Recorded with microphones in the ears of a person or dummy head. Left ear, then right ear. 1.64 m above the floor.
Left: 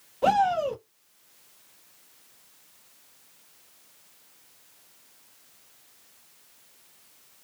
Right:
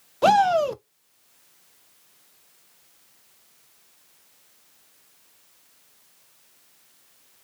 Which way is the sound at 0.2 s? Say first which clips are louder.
Right 5 dB; 70° right (ahead or behind).